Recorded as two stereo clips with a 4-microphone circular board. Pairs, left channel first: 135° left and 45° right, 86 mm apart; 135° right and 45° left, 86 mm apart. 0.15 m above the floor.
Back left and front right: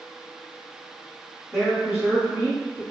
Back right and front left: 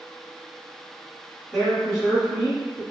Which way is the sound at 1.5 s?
65° right.